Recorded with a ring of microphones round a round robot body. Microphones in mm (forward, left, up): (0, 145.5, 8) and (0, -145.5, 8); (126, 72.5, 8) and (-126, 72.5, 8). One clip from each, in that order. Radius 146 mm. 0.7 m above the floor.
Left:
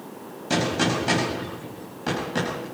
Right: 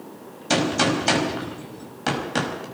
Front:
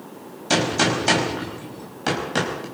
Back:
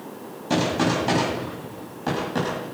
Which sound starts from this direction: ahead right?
A gunshot, at 0.5 s.